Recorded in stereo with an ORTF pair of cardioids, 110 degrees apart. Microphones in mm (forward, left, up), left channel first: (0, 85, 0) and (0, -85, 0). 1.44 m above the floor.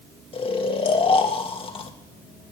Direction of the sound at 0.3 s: 35° left.